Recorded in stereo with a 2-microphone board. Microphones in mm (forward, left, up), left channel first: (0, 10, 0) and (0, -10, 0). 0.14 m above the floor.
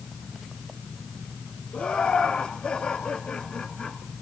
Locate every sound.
1.7 s laughter: 65° left (ahead or behind), 4 m; by 4.0 s 45° left (ahead or behind), 1.8 m